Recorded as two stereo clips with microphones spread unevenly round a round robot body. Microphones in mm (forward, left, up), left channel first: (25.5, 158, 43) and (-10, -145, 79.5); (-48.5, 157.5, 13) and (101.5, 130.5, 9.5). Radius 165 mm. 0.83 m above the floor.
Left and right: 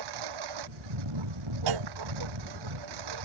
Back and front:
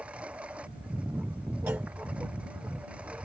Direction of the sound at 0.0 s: 95° right.